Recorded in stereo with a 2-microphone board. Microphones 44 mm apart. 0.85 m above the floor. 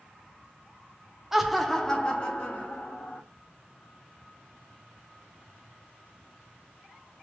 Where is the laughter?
10° right (ahead or behind), 0.5 m; by 3.2 s 40° left (ahead or behind), 0.9 m.